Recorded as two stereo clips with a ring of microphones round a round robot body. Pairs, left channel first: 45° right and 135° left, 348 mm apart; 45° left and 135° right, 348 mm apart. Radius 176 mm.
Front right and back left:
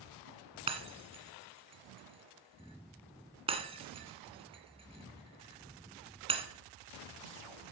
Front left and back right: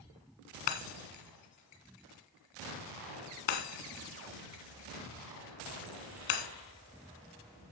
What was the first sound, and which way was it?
Breaking glass, 60° left.